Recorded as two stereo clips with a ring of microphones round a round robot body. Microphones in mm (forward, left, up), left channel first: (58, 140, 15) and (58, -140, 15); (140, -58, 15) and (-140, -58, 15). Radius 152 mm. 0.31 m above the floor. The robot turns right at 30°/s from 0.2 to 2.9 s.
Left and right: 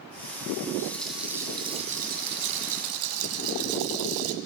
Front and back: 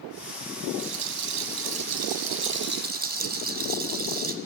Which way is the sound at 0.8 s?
170° left.